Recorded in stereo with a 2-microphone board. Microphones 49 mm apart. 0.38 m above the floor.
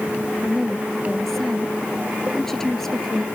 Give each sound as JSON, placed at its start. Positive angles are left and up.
{"t": 0.4, "sound": "a woman speaking", "side_deg": 10}